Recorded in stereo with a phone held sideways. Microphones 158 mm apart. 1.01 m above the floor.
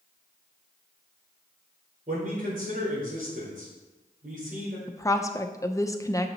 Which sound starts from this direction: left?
A woman speaking, at 4.9 s.